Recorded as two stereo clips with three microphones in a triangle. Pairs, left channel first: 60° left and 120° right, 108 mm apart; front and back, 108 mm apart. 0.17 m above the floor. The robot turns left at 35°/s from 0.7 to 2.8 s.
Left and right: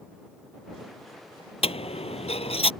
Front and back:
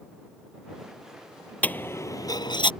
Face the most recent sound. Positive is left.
turn(degrees=35)